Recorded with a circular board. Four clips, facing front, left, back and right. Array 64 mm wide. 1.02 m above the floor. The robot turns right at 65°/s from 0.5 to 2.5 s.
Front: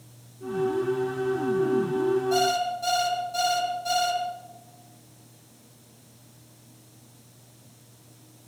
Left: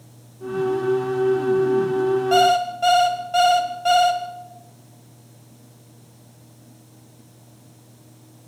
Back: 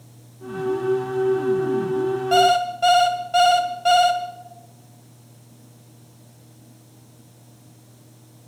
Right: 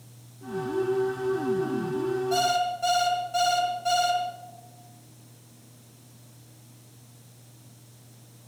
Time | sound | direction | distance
2.3 | an alarm clock | 140° left | 2 m